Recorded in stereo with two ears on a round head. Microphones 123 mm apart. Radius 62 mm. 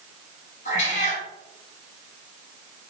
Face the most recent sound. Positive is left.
turn(degrees=55)  # may be behind; listen again after turning